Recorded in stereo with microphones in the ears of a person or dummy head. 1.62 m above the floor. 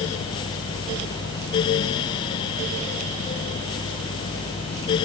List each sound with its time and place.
Only background noise.